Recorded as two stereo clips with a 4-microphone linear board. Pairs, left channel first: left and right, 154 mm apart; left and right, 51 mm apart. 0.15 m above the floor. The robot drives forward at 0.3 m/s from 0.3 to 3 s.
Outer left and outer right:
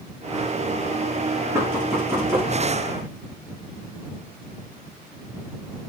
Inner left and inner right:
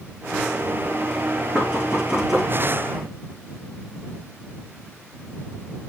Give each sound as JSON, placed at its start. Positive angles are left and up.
{"t": 1.6, "sound": "knocking", "side_deg": -20, "distance_m": 6.0}